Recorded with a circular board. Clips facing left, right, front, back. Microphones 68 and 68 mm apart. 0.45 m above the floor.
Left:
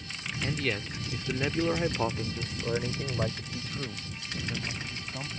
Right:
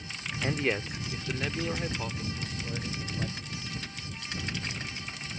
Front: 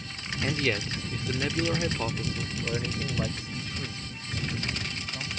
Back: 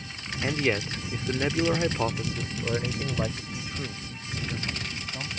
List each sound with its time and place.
0.4 s a man speaking: 115° right; by 5.3 s 105° left